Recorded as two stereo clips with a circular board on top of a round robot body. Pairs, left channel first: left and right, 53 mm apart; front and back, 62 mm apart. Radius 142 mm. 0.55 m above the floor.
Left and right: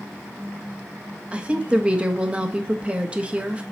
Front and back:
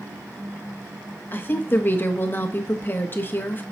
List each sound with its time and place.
1.3 s a woman speaking: 30° right, 1.4 m